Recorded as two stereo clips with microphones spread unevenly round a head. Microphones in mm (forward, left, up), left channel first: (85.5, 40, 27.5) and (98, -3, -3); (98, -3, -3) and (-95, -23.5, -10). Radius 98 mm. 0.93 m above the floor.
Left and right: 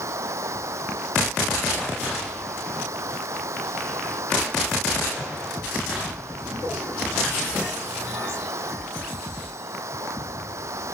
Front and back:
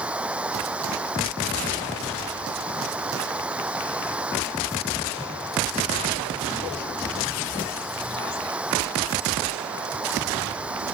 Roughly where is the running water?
Right.